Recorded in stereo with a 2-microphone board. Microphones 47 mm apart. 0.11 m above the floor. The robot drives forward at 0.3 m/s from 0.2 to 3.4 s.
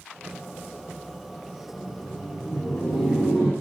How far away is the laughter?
About 3.5 m.